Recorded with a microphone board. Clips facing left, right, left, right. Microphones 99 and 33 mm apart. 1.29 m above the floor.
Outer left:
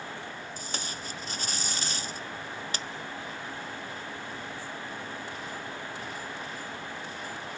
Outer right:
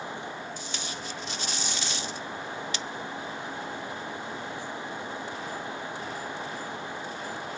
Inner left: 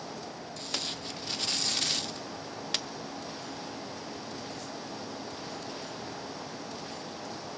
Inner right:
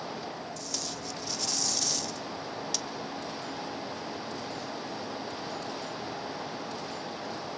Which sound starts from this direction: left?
Tape being pulled, at 0.6 s.